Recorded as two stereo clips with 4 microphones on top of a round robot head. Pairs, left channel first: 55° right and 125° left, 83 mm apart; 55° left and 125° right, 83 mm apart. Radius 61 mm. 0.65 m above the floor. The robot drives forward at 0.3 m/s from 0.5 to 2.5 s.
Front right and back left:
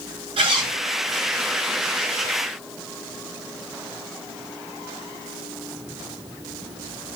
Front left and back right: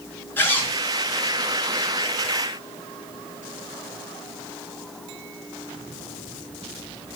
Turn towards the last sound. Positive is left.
turn(degrees=125)